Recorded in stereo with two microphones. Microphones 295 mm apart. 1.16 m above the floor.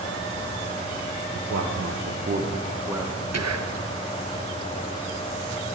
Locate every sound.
1.4 s a man speaking: 65° right (ahead or behind), 1.0 m; by 3.2 s 5° left (ahead or behind), 1.0 m
3.3 s whispering: 65° right (ahead or behind), 0.7 m